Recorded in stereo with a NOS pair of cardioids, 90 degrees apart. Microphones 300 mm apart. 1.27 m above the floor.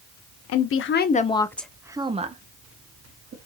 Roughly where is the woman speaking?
Ahead left.